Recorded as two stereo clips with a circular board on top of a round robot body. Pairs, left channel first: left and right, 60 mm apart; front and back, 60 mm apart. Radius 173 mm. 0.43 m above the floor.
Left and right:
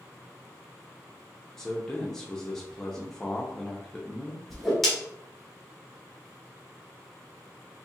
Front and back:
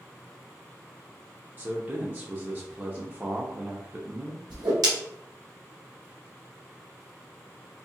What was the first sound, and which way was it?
A man speaking, 160° left.